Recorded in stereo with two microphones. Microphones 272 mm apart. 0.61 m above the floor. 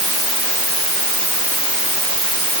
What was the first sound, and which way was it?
Only background noise.